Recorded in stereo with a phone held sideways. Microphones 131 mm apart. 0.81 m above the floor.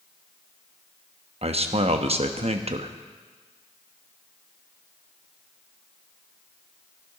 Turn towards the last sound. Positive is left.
turn(degrees=-55)  # may be behind; listen again after turning